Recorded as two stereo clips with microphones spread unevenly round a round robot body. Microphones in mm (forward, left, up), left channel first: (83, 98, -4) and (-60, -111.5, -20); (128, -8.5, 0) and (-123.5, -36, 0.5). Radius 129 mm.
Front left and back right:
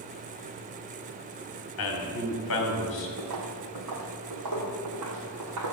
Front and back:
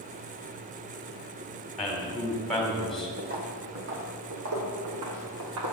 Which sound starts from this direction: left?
A man speaking, at 1.8 s.